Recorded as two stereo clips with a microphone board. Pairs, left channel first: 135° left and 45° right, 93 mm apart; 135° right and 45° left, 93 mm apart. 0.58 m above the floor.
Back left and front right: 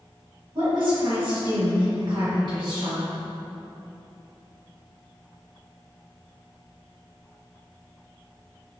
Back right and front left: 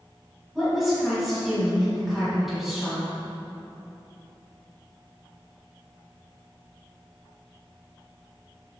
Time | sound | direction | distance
0.6 | a woman speaking | 40° right | 1.3 m